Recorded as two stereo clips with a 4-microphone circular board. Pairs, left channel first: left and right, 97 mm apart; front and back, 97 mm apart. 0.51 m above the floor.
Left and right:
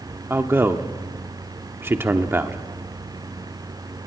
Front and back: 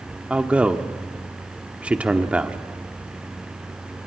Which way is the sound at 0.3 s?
120° right.